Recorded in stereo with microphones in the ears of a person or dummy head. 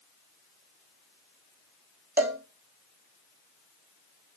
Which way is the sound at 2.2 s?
10° right (ahead or behind).